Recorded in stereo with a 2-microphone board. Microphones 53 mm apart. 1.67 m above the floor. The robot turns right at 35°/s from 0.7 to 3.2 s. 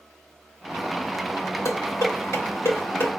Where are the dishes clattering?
75° left (ahead or behind), 3 m; by 3.1 s 45° left (ahead or behind), 3 m.